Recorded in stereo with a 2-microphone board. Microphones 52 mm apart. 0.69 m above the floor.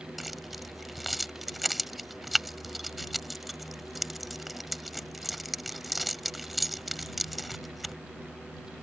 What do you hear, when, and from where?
0.2 s keys jangling: centre (ahead or behind)